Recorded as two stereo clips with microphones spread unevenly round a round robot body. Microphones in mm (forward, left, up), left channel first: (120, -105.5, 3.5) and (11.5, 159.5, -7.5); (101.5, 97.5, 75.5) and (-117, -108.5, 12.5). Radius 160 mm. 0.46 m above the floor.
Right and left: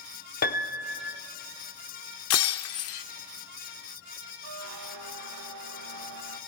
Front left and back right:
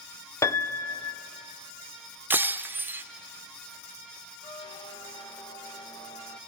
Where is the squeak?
110° left, 0.6 m.